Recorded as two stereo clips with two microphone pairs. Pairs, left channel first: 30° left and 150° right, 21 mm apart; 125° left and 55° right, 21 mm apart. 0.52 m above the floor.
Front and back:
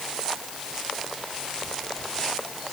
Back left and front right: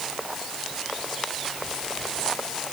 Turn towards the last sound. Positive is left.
No sound to turn to.